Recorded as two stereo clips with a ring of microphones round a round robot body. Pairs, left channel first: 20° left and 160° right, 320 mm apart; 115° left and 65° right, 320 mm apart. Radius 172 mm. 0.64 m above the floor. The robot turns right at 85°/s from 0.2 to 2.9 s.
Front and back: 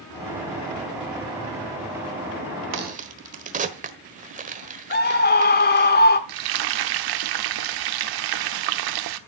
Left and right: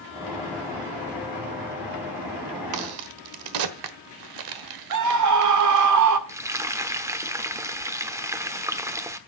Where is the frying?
150° right, 1.1 m.